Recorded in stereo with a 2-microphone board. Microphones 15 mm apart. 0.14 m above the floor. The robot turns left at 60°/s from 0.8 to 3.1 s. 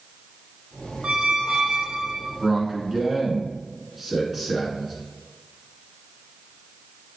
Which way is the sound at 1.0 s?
65° right.